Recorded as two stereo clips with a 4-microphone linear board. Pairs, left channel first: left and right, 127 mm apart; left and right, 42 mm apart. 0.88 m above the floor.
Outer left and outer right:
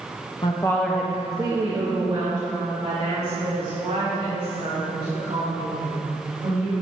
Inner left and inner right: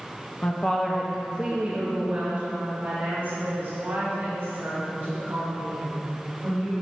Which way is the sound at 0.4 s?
40° left (ahead or behind).